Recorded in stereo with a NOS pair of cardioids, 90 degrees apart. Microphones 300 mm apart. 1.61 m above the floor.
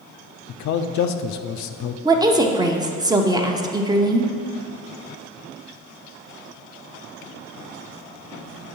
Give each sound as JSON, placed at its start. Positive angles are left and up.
{"t": 0.5, "sound": "a man speaking", "azimuth_deg": 70, "distance_m": 0.7}
{"t": 2.0, "sound": "a woman speaking", "azimuth_deg": -15, "distance_m": 0.8}